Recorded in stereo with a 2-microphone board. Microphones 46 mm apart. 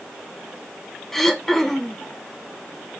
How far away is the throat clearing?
About 0.7 m.